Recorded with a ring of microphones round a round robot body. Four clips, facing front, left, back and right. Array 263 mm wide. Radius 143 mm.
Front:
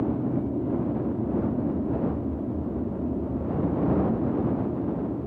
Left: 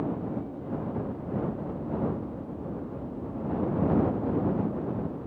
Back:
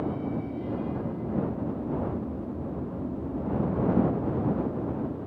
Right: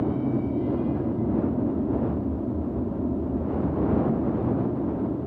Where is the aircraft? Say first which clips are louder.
Right 6 dB, front 4 dB; 60° right.